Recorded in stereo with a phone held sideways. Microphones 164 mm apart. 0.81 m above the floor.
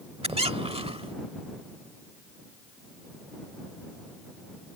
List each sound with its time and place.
0.2 s a squeak: 35° right (ahead or behind)